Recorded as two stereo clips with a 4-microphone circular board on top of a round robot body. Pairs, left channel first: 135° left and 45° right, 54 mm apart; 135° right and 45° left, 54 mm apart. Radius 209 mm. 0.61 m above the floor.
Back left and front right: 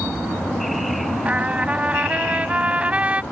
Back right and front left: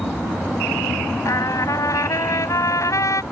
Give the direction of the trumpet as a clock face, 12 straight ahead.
4 o'clock.